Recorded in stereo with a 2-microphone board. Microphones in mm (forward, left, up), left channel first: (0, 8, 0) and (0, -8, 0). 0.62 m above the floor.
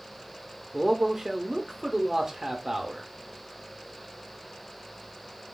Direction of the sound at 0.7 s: 30° right (ahead or behind).